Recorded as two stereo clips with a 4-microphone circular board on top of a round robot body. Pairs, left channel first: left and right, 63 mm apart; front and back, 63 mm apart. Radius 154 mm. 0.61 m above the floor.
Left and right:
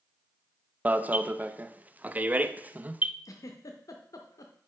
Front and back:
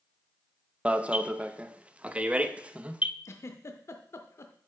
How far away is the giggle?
About 0.5 m.